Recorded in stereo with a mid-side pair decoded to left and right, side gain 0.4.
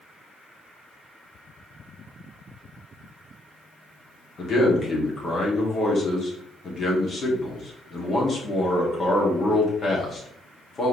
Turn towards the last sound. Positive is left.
turn(degrees=45)